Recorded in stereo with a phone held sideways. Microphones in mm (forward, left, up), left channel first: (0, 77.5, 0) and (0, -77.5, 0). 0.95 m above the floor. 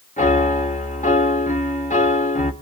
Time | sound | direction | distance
0.2 | a piano | 55° left (ahead or behind) | 1.4 m